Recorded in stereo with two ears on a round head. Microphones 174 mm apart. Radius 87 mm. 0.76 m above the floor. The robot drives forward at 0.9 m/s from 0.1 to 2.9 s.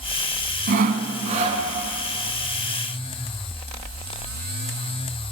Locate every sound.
0.7 s sawing: 50° right (ahead or behind), 1.1 m; by 1.6 s 30° right (ahead or behind), 1.7 m